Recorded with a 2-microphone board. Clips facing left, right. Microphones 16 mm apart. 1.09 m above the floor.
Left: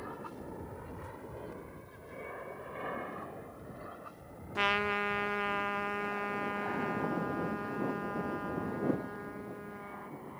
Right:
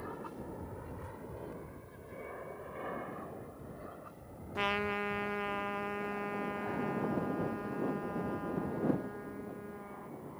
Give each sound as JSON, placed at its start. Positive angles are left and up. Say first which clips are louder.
{"t": 0.0, "sound": "an aircraft", "louder": "even", "side_deg": 5}
{"t": 4.5, "sound": "a trumpet", "louder": "left 3 dB", "side_deg": 15}